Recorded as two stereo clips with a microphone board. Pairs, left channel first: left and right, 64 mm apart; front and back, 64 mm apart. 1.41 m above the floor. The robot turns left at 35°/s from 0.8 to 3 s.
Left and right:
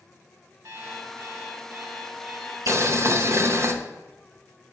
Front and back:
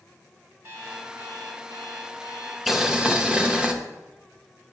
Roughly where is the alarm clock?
Behind right.